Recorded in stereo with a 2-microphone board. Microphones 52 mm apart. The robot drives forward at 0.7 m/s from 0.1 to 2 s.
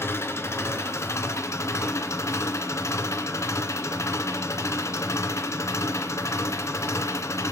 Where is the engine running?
55° left (ahead or behind), 2 m; by 7.5 s 75° left (ahead or behind), 1.9 m.